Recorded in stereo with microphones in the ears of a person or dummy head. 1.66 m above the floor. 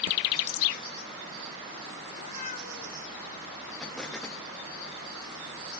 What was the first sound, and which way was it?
A cat meowing, 35° left (ahead or behind).